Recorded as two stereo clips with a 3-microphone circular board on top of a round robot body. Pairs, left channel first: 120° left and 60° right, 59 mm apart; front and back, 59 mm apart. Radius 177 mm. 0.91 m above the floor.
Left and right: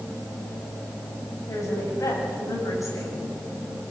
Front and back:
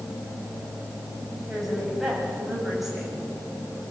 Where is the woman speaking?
95° left, 7 m.